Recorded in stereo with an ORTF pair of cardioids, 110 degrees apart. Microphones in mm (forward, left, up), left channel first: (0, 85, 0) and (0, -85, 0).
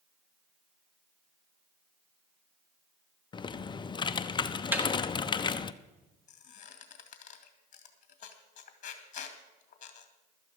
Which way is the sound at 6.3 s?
50° left.